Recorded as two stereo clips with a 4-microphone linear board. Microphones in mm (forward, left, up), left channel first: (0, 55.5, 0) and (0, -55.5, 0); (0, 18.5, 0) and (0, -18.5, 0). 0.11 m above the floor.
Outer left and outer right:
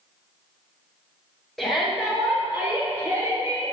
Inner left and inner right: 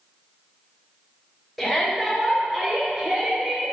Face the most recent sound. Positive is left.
turn(degrees=-35)  # may be behind; listen again after turning